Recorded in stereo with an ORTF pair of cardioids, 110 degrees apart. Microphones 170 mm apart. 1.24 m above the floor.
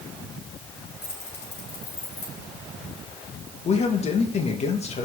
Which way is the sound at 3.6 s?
40° left.